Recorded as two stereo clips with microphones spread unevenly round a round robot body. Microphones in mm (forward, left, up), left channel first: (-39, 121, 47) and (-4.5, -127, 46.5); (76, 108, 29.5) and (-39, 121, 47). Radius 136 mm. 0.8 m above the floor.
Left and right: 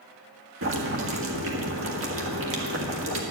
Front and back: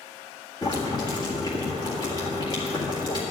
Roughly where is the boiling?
Ahead right.